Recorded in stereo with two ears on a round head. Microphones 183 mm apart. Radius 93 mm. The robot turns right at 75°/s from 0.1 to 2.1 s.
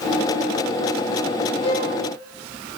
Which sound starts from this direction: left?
A violin, at 1.6 s.